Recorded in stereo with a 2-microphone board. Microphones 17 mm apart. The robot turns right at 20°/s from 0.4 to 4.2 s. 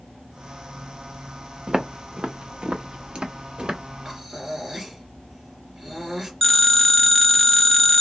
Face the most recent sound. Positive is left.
turn(degrees=20)  # may be behind; listen again after turning